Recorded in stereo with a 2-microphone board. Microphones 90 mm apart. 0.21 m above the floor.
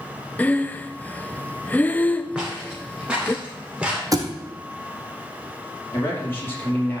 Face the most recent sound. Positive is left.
turn(degrees=25)  # may be behind; listen again after turning